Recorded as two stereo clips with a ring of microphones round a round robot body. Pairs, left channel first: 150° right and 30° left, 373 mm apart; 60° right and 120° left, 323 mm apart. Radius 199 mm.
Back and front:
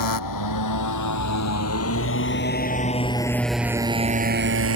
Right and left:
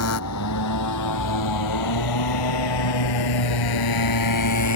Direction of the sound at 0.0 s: 110° right.